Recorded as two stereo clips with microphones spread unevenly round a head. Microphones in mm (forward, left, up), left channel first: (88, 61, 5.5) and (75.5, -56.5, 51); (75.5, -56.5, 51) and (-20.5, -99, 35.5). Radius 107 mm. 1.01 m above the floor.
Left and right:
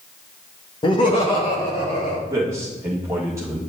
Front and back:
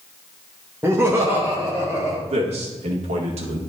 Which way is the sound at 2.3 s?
175° right.